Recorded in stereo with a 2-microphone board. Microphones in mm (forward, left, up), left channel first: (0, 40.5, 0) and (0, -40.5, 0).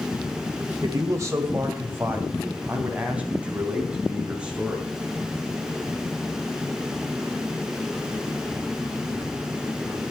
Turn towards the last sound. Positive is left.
turn(degrees=-10)  # may be behind; listen again after turning